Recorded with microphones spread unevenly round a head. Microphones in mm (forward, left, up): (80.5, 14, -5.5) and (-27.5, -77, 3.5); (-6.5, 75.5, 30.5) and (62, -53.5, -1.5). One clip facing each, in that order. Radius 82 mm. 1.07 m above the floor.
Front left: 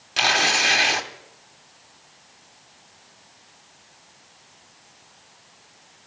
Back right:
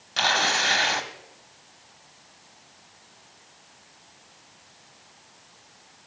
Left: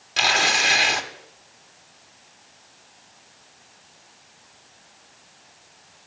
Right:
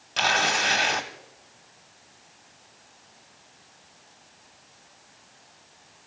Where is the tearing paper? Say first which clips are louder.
Front left 2 dB, left 1 dB; 105° left, 0.9 m.